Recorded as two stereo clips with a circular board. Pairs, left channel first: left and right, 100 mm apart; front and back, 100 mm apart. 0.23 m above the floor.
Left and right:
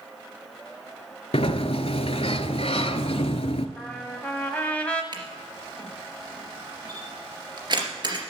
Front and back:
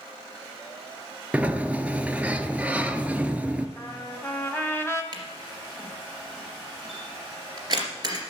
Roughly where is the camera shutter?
Behind right.